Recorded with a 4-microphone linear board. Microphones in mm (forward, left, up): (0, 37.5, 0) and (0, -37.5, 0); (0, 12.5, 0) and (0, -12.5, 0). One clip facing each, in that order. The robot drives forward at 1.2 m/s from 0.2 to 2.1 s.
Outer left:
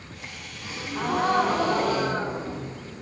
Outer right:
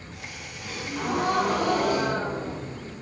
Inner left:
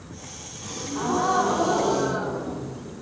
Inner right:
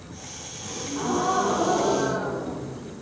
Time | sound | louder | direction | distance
0.6 | a gasp | outer left 1 dB, inner left 1 dB | 20° left (ahead or behind) | 1.2 m